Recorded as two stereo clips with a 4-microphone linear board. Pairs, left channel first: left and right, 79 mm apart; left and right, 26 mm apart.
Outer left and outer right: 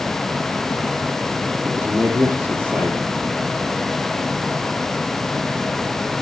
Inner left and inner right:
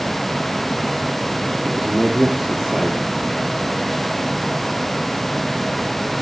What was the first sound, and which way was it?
A man speaking, 20° right (ahead or behind).